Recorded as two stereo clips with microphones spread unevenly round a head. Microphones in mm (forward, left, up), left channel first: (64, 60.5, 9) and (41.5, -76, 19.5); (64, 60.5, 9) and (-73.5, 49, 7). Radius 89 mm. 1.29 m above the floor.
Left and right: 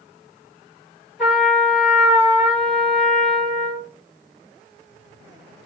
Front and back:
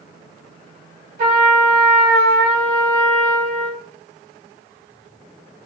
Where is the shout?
No shout in this recording.